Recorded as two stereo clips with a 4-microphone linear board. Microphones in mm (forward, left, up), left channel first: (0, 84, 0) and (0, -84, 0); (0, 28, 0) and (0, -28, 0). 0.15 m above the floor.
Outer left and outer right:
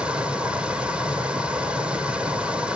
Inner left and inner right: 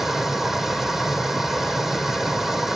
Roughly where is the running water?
Centre.